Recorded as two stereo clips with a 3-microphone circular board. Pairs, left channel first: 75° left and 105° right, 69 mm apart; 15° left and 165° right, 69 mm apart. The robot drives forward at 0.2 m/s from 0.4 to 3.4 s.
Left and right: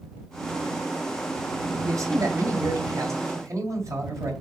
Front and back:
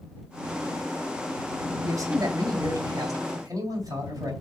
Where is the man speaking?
135° right, 2.5 m; by 4.3 s 140° right, 3 m.